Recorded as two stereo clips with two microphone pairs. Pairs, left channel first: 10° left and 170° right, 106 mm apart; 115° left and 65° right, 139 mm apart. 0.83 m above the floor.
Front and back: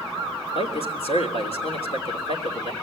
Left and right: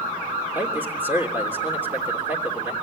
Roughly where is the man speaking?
Ahead.